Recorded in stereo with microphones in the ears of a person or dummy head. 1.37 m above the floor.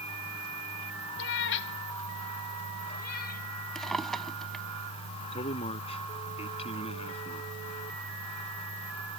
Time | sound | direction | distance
1.2 | a cat meowing | 60° left (ahead or behind) | ?
3.8 | a drawer | 5° left (ahead or behind) | ?
5.3 | a man speaking | 35° left (ahead or behind) | ?